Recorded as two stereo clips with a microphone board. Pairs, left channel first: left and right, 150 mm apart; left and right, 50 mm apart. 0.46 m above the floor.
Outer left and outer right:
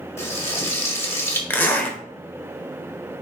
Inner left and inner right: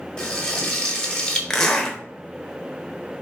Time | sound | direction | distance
0.2 | frying | 20° left (ahead or behind) | 1.3 m
1.5 | a zipper | 15° left (ahead or behind) | 0.9 m